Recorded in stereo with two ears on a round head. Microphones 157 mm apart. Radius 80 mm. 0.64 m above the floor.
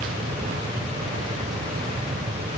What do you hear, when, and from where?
Only background noise.